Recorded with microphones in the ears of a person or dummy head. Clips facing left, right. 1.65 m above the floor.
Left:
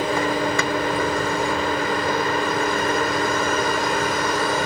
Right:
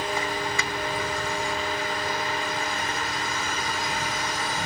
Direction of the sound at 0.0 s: 50° left (ahead or behind).